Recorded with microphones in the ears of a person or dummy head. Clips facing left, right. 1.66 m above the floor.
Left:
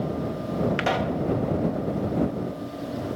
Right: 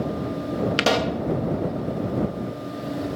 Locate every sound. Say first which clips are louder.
0.8 s a pop: right 3 dB; 55° right (ahead or behind)